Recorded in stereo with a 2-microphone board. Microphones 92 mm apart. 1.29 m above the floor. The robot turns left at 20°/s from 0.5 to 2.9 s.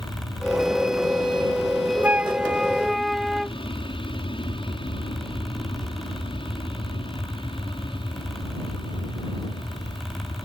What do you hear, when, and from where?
0.0 s an aircraft: 120° left; by 10.4 s 70° left
2.0 s a flute: 15° right (ahead or behind); by 3.6 s centre (ahead or behind)